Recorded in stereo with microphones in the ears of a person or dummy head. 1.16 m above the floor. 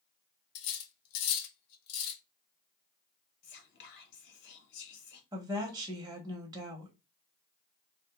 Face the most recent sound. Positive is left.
turn(degrees=-15)  # may be behind; listen again after turning